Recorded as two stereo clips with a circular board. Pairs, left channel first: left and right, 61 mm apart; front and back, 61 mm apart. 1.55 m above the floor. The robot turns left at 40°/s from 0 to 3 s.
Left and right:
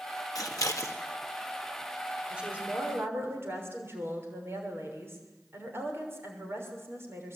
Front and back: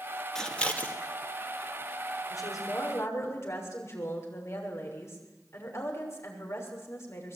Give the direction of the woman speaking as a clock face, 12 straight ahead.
12 o'clock.